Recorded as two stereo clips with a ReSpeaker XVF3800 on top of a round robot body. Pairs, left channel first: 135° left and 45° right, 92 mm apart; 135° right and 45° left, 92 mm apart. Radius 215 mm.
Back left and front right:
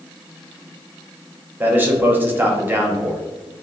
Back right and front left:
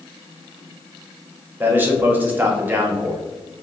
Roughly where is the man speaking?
Ahead.